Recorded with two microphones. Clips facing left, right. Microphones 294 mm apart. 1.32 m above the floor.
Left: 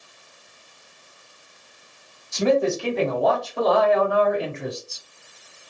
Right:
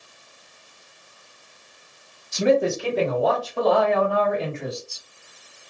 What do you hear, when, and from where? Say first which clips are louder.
2.3 s a man speaking: even; 15° right (ahead or behind), 2 m; by 5.0 s 25° left (ahead or behind), 1.6 m